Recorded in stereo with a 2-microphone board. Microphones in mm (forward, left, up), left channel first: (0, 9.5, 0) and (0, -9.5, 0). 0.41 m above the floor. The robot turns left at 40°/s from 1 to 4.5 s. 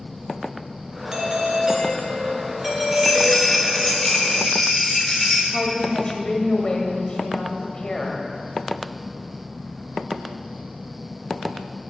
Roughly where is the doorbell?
Right.